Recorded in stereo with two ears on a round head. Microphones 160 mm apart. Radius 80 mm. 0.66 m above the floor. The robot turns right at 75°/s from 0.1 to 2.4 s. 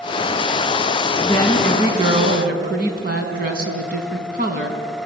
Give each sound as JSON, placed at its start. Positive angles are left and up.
{"t": 1.2, "sound": "a woman speaking", "azimuth_deg": 150, "distance_m": 5.0}